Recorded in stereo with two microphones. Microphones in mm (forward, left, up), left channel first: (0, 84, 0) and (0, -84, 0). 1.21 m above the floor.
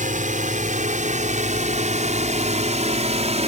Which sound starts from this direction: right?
A drone, at 0.0 s.